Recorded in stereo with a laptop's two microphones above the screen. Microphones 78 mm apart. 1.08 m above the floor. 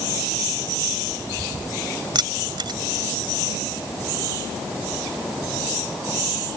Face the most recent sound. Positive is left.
turn(degrees=-70)  # may be behind; listen again after turning